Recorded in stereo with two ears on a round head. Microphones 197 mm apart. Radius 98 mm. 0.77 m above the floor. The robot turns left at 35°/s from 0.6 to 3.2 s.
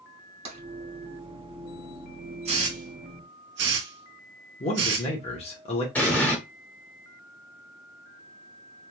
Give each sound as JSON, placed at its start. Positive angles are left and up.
{"t": 0.5, "sound": "tapping", "side_deg": -30, "distance_m": 1.1}
{"t": 2.5, "sound": "a hiss", "side_deg": -25, "distance_m": 1.0}
{"t": 4.6, "sound": "a man speaking", "side_deg": 30, "distance_m": 0.7}
{"t": 6.0, "sound": "an explosion", "side_deg": 10, "distance_m": 0.9}